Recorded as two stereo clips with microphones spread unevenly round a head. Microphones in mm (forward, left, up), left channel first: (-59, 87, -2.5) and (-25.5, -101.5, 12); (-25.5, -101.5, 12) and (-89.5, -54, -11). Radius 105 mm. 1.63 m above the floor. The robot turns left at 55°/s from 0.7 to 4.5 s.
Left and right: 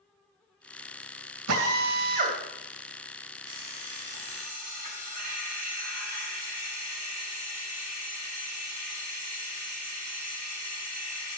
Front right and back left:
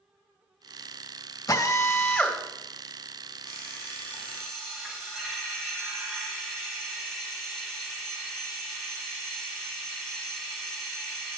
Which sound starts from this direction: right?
A drill, at 1.5 s.